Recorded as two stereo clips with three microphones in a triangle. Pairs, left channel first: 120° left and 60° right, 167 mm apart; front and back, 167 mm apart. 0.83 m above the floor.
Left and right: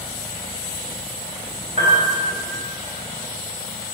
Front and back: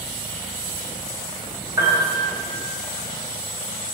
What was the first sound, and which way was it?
A piano, 110° right.